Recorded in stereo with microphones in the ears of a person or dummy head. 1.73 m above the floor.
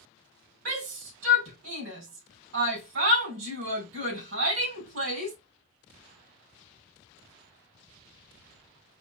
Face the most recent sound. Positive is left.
turn(degrees=-80)